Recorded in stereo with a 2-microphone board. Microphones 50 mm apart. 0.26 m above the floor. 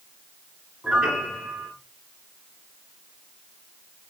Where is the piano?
15° right (ahead or behind), 1.9 m.